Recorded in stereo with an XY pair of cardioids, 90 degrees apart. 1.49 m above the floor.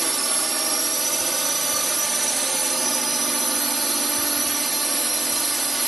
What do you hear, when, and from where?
0.0 s a drone: 20° right